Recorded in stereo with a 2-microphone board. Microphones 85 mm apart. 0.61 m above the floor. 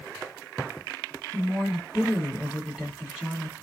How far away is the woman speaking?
About 1.6 m.